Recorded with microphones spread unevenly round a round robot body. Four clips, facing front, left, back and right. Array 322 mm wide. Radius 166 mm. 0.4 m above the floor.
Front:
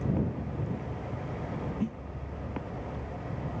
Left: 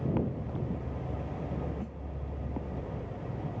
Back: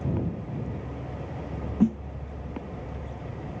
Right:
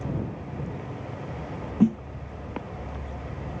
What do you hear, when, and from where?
1.8 s a snare drum: 120° right